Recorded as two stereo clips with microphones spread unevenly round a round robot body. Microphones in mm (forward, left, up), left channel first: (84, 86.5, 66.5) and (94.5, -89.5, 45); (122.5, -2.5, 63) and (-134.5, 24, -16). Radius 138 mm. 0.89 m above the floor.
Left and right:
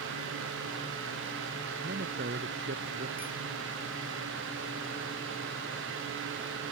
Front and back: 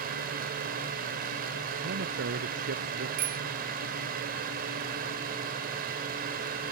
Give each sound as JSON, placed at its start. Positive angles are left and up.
{"t": 1.8, "sound": "a man speaking", "azimuth_deg": -135}
{"t": 3.2, "sound": "a bicycle bell", "azimuth_deg": -170}